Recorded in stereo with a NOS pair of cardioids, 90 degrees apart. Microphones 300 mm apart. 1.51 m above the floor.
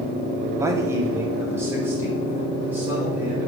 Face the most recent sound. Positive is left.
turn(degrees=-5)